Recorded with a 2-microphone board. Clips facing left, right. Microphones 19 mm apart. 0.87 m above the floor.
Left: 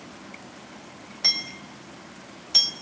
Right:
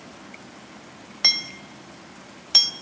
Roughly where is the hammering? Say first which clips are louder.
Right 3 dB; right.